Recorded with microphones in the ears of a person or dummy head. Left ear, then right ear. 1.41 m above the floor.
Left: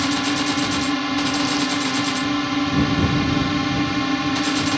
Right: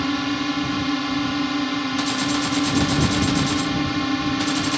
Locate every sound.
0.0 s a drone: 10° left (ahead or behind)